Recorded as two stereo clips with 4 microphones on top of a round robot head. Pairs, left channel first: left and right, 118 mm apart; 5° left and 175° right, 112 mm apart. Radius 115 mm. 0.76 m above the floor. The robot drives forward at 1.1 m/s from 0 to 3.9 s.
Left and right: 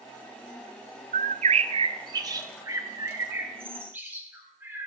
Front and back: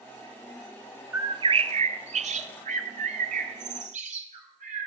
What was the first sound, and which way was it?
A bird, 100° right.